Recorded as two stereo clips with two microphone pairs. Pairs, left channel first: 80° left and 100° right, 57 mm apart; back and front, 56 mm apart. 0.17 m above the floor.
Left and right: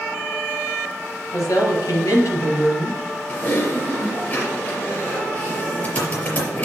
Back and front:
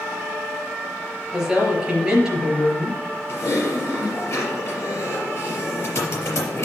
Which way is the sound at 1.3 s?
80° left.